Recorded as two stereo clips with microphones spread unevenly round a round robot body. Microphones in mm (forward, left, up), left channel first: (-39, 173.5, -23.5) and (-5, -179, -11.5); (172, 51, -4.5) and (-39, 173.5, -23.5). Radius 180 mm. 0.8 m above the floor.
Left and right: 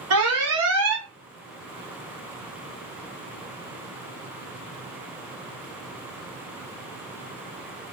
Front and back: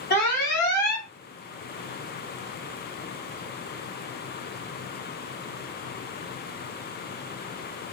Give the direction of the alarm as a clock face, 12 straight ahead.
2 o'clock.